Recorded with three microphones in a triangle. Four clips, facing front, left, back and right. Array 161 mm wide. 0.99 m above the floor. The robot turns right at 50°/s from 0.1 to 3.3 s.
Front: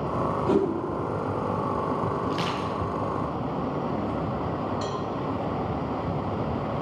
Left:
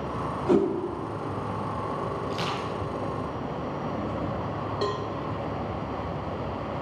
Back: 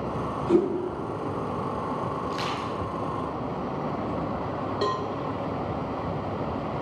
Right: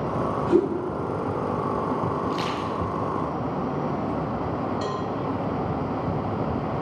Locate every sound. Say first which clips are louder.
0.5 s a whoosh: right 1 dB, back 2 dB; 65° left, 4.5 m; by 0.7 s 75° left, 4.5 m
2.3 s crushing: right 4 dB, front 2 dB; 30° right, 4.5 m; by 2.7 s 10° right, 4.5 m
4.8 s a cowbell: right 1 dB, back 3 dB; 150° left, 1.1 m